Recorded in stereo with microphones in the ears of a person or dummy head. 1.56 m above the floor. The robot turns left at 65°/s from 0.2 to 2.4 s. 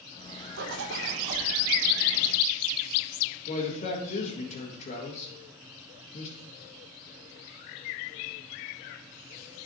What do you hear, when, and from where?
0.6 s a zipper: 80° right, 1.0 m; by 1.5 s 140° right, 1.0 m
3.5 s a man speaking: 45° left (ahead or behind), 1.8 m